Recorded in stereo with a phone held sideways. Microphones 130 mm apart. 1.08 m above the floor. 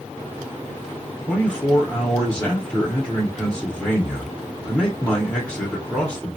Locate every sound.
1.3 s a man speaking: 10° left (ahead or behind), 1.0 m